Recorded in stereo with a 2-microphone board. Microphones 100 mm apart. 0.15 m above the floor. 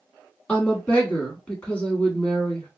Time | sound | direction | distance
0.5 | a woman speaking | 15° left (ahead or behind) | 1.2 m